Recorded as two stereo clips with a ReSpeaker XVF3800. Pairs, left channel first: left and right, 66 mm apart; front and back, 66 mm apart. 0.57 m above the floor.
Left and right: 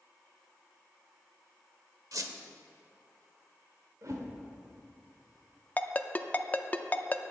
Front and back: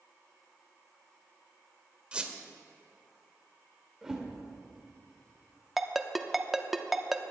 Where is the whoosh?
95° right, 1.8 m.